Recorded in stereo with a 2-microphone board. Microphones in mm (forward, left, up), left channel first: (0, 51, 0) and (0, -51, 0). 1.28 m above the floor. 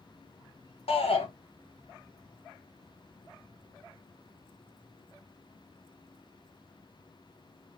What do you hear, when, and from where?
0.9 s a shout: 75° left (ahead or behind), 1.1 m